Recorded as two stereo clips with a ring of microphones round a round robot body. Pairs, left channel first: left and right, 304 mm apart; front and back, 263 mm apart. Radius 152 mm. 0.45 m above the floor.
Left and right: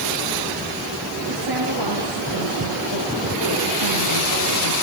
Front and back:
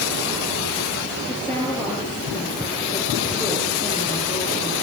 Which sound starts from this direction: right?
A woman speaking, at 1.3 s.